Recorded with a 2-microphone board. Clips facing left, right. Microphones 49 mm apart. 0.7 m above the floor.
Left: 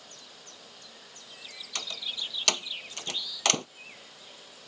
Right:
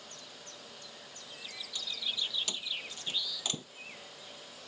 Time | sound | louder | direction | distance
1.8 | a door slam | left 1 dB | 80° left | ?